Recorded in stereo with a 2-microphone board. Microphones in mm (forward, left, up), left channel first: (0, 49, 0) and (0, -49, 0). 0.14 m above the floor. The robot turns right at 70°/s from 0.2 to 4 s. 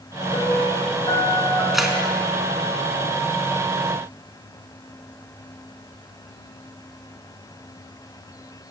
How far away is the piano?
About 4 m.